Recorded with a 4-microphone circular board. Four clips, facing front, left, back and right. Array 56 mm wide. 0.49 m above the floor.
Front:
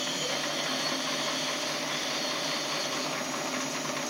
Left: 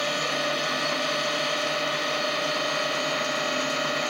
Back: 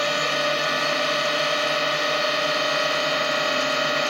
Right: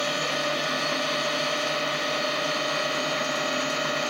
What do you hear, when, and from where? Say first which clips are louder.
0.0 s a drone: even, back 10 dB; straight behind